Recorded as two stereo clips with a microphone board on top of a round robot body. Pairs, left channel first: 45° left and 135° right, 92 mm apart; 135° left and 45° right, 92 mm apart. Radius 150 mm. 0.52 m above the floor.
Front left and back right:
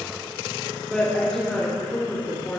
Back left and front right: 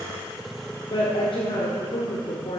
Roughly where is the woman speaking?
Behind left.